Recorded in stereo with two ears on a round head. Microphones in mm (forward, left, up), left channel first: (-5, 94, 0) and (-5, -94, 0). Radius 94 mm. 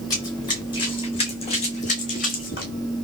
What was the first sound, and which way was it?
Running footsteps, 15° left (ahead or behind).